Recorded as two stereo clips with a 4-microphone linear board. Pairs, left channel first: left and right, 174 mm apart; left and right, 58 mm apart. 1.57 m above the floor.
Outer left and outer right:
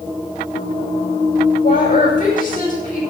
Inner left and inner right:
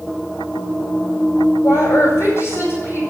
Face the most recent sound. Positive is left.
turn(degrees=55)  # may be behind; listen again after turning